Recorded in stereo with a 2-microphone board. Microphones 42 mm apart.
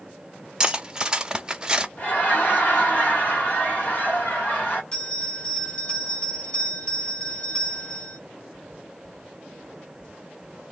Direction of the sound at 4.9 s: 25° left (ahead or behind).